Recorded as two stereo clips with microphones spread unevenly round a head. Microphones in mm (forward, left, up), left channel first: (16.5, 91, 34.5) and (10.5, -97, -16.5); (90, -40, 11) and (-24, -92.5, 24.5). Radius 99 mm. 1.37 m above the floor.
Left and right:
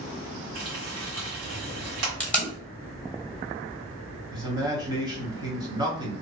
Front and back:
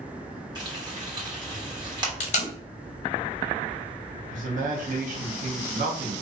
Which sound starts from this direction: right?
Frying, at 0.6 s.